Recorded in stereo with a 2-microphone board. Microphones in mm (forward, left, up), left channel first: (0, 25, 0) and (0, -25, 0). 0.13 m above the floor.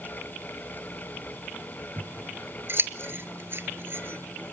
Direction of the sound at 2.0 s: 45° right (ahead or behind).